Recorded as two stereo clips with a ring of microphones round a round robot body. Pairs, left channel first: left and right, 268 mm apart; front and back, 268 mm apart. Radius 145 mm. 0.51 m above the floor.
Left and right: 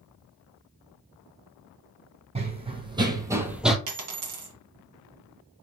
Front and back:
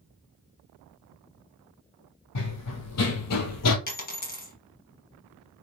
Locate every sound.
2.4 s running footsteps: 25° right, 1.3 m; by 3.8 s straight ahead, 0.7 m
3.9 s a dropped coin: 55° right, 1.5 m